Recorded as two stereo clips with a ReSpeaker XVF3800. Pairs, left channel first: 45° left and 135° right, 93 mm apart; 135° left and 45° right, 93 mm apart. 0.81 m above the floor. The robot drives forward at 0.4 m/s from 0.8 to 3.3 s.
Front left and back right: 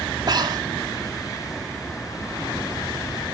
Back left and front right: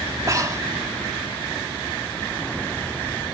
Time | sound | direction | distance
0.3 | breathing | 100° right | 2 m